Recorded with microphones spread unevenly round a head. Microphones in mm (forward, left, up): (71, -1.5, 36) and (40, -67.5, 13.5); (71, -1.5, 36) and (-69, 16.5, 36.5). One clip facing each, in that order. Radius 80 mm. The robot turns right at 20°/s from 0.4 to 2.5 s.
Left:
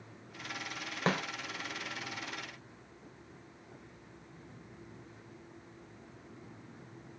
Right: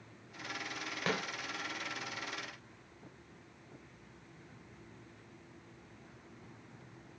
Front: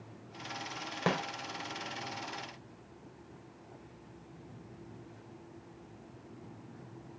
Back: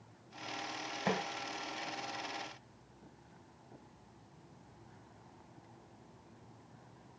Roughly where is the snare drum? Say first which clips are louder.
Left 4 dB, front 3 dB; ahead.